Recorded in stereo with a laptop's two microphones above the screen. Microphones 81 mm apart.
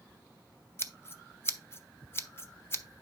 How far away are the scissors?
About 0.5 m.